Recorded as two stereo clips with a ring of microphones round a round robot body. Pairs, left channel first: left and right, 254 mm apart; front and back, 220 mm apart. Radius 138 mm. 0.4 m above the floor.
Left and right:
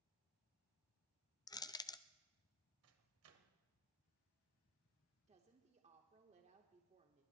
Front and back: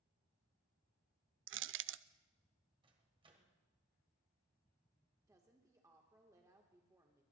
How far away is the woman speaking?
About 1.4 m.